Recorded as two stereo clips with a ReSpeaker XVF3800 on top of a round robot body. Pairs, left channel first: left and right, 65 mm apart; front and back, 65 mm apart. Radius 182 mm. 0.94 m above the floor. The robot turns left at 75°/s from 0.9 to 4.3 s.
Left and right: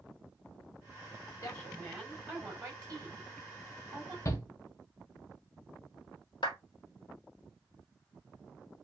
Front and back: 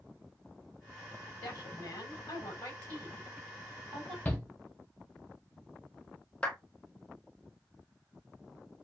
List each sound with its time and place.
1.4 s a woman speaking: 45° left, 4 m; by 4.2 s 160° right, 4 m
4.2 s a shout: 60° left, 1.0 m
6.4 s a clap: 75° left, 1.6 m